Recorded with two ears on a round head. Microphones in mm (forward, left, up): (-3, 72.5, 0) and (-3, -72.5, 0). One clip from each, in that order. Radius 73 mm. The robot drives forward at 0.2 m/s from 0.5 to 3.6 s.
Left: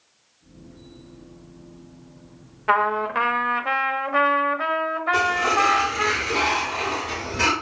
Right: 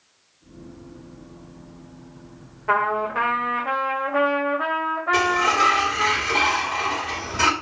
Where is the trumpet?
70° left (ahead or behind), 1.1 m; by 6.1 s 60° left (ahead or behind), 1.2 m.